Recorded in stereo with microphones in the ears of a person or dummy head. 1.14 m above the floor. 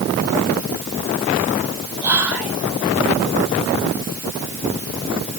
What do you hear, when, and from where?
2.0 s whispering: 10° right (ahead or behind), 1.3 m